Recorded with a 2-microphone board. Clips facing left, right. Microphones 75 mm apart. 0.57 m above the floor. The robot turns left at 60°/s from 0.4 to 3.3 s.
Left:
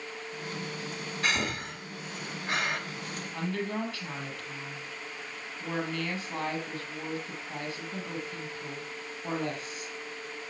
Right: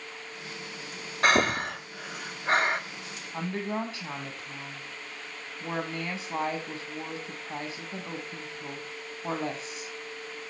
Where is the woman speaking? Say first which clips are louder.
Right 2 dB; 20° right (ahead or behind), 5.5 m.